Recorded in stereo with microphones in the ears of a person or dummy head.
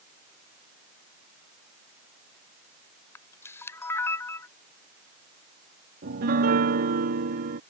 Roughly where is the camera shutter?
Centre.